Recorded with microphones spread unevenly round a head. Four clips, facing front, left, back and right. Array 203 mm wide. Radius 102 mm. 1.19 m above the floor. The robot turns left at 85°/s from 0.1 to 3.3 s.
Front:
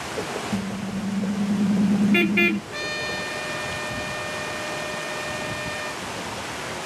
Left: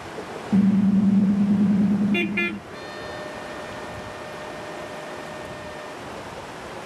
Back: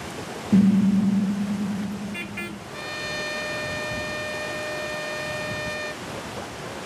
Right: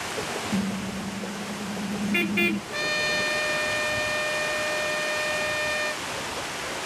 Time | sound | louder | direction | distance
0.5 | a car horn | left 14 dB, back 10 dB | 155° left | ?
2.7 | a trumpet | right 5 dB, front 3 dB | 55° right | ?